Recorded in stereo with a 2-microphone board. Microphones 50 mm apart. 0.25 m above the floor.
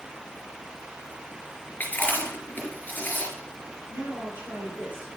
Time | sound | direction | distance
1.8 | chewing | 35° left (ahead or behind) | 4 m
3.9 | a woman speaking | 35° right (ahead or behind) | 4 m